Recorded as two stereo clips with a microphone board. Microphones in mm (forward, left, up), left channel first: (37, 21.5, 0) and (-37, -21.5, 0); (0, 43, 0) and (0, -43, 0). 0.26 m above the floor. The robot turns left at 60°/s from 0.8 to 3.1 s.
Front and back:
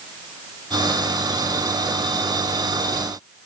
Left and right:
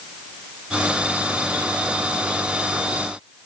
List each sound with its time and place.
Only background noise.